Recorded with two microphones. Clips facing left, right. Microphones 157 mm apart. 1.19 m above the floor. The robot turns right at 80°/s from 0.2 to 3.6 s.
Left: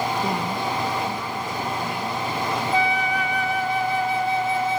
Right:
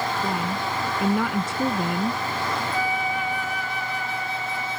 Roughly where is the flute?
Ahead left.